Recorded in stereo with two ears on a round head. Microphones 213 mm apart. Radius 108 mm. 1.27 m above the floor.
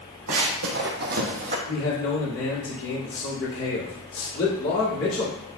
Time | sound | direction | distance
0.3 | running footsteps | 60° right (ahead or behind) | 2.5 m
1.7 | a man speaking | 65° left (ahead or behind) | 3 m